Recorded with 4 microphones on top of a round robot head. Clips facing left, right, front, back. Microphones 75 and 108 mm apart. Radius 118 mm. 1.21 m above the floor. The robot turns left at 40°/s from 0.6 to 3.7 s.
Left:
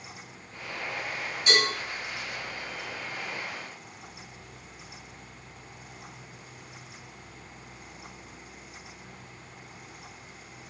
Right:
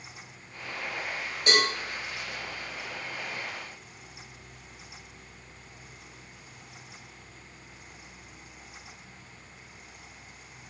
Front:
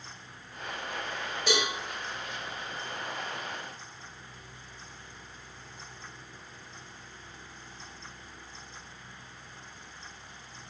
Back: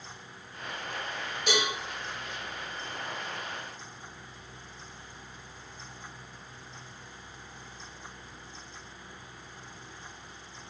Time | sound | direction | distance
1.5 | a cowbell | 60° right | 1.0 m